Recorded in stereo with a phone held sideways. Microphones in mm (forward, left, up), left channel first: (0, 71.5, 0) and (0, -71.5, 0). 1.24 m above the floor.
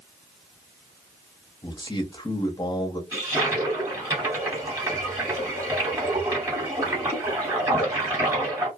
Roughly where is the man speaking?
Left.